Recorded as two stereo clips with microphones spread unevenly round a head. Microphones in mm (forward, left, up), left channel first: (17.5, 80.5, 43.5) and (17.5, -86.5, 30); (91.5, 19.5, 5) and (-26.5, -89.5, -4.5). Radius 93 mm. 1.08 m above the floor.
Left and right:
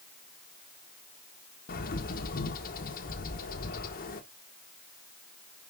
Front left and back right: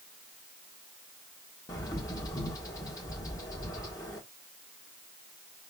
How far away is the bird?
About 1.3 m.